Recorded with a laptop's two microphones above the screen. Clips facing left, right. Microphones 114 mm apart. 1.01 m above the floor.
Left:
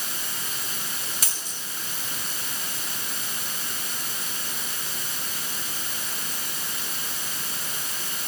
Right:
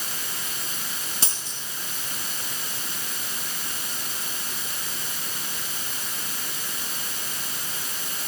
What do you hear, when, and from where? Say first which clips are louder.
1.2 s a dropped coin: right 1 dB; 30° right (ahead or behind), 5.5 m